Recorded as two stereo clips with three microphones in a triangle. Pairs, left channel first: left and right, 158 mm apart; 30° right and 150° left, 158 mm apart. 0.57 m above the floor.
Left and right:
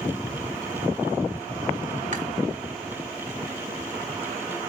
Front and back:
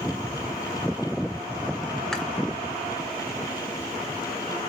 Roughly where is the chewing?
Behind right.